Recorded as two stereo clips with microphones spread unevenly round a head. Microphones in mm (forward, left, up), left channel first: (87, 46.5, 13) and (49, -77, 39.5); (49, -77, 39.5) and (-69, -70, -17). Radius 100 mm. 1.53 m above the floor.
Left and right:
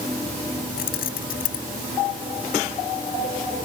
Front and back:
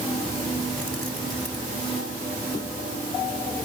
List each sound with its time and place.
0.8 s keys jangling: 75° left